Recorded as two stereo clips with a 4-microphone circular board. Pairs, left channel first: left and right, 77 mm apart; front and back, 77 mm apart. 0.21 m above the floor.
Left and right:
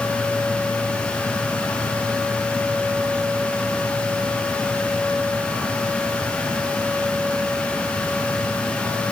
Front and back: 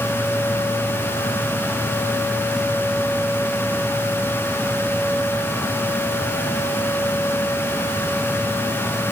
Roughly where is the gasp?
No gasp in this recording.